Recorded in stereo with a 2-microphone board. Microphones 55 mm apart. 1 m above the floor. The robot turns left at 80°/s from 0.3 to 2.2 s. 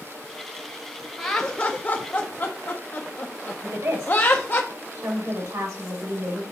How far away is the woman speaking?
About 2.5 m.